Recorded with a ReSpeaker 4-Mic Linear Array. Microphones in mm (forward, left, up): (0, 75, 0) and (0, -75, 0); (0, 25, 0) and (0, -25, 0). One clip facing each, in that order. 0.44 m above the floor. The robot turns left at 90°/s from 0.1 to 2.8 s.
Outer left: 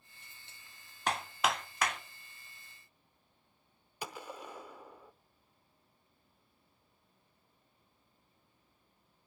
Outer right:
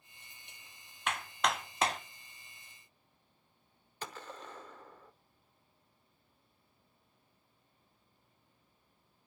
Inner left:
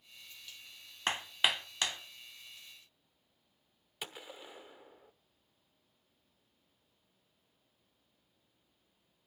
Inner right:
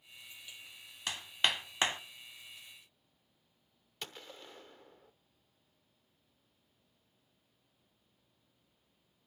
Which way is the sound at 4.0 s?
10° left (ahead or behind).